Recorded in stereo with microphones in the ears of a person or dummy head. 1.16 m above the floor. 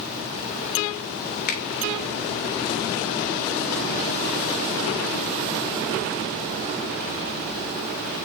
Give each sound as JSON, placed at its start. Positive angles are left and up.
{"t": 1.5, "sound": "a finger snap", "side_deg": 50, "distance_m": 1.6}